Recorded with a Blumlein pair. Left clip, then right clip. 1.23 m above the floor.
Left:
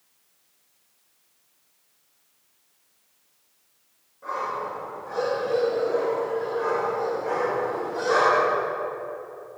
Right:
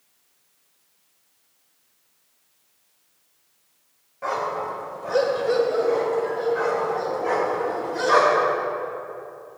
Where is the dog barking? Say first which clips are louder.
Right 3 dB; 50° right, 2.5 m; by 8.6 s 80° right, 4 m.